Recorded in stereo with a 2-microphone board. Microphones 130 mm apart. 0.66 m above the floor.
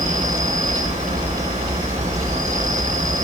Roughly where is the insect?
Right.